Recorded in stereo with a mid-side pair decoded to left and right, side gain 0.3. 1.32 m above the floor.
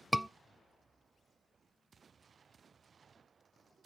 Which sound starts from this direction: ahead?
A scream, at 0.1 s.